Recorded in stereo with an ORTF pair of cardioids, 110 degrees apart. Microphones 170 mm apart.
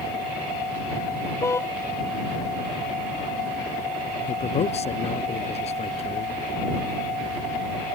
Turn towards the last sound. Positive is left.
turn(degrees=40)